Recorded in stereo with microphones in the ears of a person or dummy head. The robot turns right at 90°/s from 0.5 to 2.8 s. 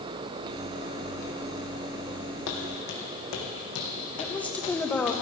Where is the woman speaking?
5° left (ahead or behind), 1.5 m.